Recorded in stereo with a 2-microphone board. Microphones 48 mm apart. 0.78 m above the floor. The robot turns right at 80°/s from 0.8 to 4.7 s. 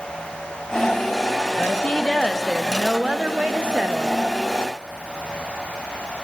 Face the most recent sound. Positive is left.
turn(degrees=-10)